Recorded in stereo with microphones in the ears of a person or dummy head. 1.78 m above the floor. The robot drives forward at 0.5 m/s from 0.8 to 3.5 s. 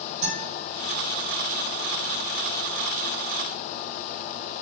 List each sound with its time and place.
0.2 s a guitar: 45° right (ahead or behind), 1.6 m